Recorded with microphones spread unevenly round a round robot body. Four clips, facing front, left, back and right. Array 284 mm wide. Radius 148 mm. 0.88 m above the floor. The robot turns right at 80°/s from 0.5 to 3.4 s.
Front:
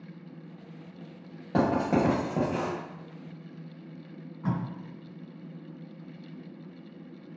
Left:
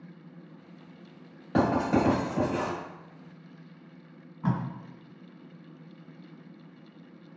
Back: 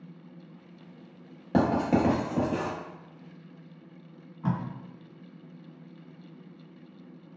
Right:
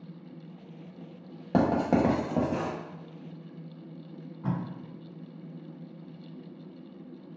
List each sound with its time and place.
1.5 s writing: 125° right, 0.7 m; by 2.7 s 30° right, 0.7 m
4.4 s tape being pulled: 110° left, 1.6 m